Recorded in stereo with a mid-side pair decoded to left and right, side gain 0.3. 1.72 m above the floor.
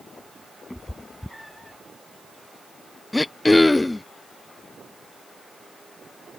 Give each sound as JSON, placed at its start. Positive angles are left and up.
{"t": 0.7, "sound": "a cat meowing", "azimuth_deg": 10}
{"t": 3.1, "sound": "throat clearing", "azimuth_deg": 20}